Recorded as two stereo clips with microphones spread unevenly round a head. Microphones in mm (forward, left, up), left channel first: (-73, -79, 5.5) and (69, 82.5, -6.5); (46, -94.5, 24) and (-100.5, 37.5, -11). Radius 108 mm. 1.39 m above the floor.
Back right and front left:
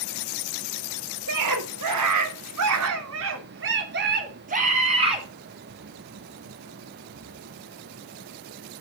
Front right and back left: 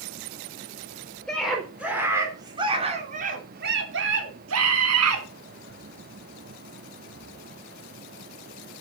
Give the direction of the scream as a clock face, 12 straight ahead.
11 o'clock.